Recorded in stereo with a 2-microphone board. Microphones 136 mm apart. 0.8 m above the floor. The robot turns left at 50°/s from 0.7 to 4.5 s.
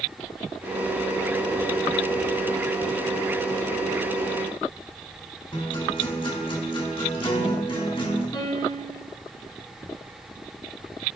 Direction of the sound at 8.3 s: 30° left (ahead or behind).